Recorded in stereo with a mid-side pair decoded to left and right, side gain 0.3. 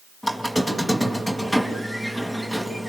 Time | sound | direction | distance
0.2 | a squeak | 5° left | 4.5 m